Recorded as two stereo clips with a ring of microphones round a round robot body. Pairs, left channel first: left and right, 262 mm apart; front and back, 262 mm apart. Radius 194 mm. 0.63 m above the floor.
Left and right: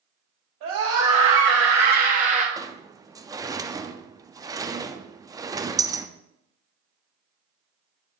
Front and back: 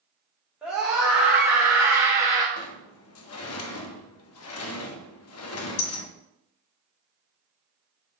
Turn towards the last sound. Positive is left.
turn(degrees=-10)